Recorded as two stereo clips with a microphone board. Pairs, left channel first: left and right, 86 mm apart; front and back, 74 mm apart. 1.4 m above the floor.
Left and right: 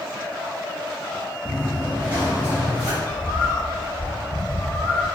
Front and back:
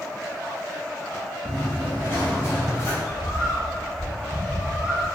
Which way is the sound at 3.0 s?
45° left.